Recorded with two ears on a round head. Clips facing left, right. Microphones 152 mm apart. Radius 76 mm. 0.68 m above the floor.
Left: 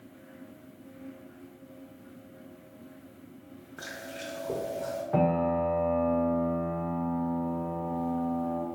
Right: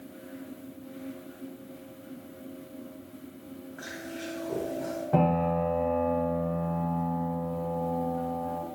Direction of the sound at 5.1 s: 45° right (ahead or behind).